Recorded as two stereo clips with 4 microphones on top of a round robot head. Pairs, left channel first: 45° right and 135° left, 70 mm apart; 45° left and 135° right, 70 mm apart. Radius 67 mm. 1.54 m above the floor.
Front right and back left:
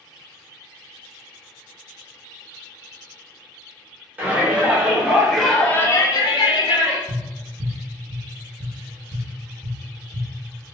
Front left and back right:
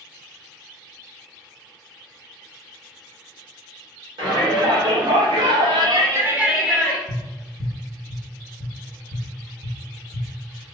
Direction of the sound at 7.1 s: 135° right.